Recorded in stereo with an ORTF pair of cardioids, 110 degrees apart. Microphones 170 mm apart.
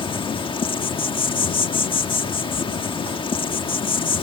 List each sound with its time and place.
0.0 s an insect: 30° left